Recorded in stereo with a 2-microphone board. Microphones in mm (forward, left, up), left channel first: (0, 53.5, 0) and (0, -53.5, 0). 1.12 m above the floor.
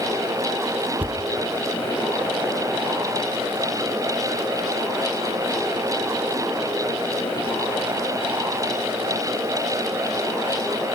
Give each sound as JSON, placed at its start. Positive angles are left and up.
{"t": 1.0, "sound": "a thud", "side_deg": -15, "distance_m": 0.7}